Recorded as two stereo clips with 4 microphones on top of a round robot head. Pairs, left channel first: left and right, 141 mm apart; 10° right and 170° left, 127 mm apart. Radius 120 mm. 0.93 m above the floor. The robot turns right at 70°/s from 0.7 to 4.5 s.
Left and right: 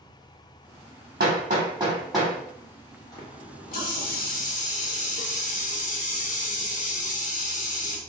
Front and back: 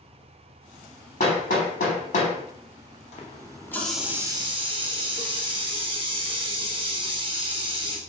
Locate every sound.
1.2 s hammering: 70° right, 0.9 m; by 2.3 s 10° left, 0.9 m
3.1 s a running tap: 25° left, 0.8 m; by 8.0 s 120° left, 0.8 m